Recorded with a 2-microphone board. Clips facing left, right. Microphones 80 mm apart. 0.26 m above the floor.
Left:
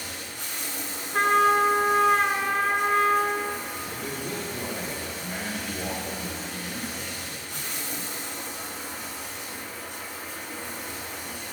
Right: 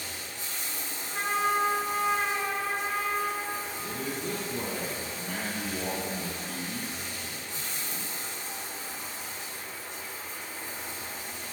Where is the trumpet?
65° left (ahead or behind), 0.9 m.